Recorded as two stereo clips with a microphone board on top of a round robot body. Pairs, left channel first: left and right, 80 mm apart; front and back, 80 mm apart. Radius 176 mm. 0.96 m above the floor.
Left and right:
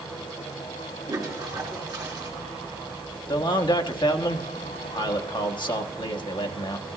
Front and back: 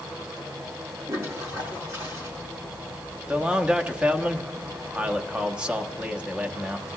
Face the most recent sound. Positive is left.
turn(degrees=105)